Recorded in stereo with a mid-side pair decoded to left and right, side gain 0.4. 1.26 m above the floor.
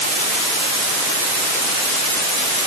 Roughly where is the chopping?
No chopping in this recording.